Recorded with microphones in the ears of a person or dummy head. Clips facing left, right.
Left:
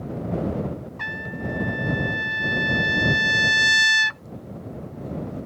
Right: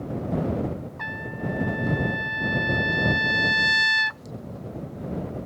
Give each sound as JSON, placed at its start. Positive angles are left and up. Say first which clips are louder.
{"t": 1.0, "sound": "a trumpet", "louder": "even", "side_deg": 40}